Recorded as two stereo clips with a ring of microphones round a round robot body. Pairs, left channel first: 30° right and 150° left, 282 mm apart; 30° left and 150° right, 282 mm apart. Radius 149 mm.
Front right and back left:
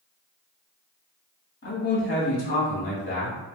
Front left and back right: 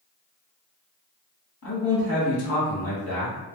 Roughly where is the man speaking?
Ahead.